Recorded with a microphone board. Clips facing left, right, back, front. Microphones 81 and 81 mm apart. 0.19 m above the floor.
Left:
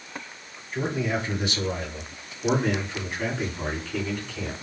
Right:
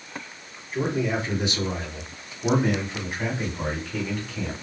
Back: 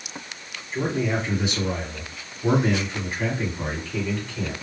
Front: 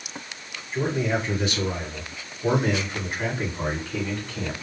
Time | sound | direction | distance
0.7 | a man speaking | 140° right | 1.9 m